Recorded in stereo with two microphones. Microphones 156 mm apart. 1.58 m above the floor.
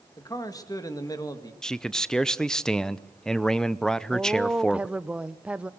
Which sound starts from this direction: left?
A man speaking, at 0.2 s.